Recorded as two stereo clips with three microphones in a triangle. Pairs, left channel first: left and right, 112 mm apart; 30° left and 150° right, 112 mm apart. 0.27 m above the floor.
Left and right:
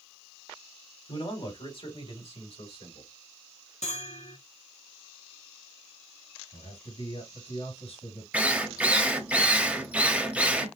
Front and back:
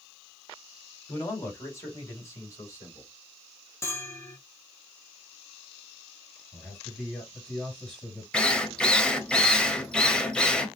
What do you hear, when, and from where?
1.1 s a man speaking: 85° left, 2 m; by 3.1 s 90° left, 3.5 m
3.8 s a bell: 95° left, 1.8 m
6.5 s a man speaking: 110° left, 4 m
8.3 s a drill: 40° right, 1.0 m